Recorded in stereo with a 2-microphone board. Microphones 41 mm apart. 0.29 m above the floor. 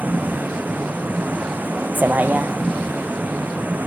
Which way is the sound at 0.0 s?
45° right (ahead or behind).